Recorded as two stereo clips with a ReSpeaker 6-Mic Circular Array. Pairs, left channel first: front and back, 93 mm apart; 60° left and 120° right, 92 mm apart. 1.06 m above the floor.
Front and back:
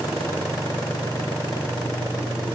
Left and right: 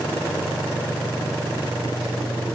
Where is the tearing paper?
No tearing paper in this recording.